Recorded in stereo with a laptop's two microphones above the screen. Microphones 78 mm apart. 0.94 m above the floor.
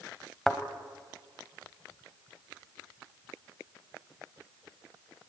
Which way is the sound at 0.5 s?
5° left (ahead or behind).